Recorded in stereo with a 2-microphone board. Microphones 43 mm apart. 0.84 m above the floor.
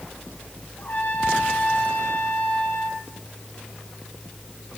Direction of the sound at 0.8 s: 45° left (ahead or behind).